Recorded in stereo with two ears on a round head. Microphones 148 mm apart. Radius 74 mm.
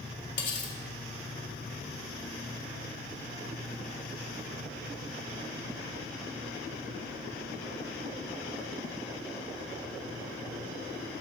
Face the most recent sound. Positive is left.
turn(degrees=50)  # may be behind; listen again after turning